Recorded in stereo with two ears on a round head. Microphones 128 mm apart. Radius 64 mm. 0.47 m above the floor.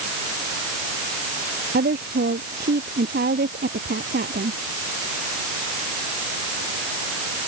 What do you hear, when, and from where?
1.7 s a woman speaking: 65° right (ahead or behind)